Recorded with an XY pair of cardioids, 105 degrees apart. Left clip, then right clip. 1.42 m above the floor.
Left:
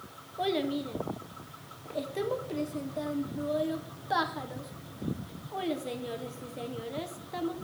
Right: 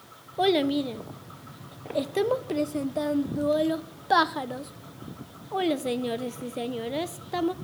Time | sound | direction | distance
0.4 | a child speaking | 55° right | 0.6 m